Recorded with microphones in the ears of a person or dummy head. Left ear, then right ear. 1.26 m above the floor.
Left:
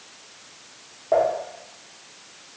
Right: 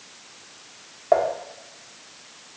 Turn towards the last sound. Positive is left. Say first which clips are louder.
# even
turn(degrees=-45)  # may be behind; listen again after turning